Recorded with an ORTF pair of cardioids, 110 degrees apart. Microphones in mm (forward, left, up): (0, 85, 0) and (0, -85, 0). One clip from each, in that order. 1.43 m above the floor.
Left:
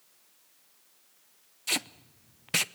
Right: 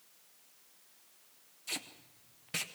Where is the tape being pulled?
45° left, 0.6 m.